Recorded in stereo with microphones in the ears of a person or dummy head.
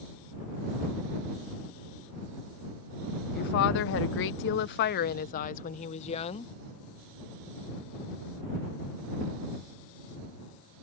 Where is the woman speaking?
50° left (ahead or behind); by 6.5 s 30° left (ahead or behind).